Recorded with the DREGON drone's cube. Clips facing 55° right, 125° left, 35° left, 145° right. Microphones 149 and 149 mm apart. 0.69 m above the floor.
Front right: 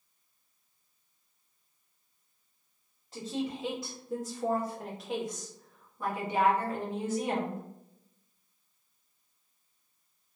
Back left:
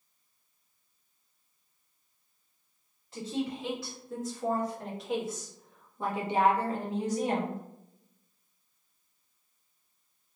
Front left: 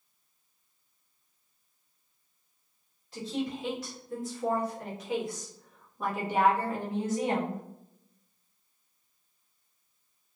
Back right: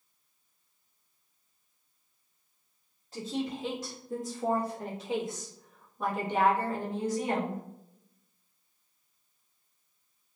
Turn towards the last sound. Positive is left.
turn(degrees=90)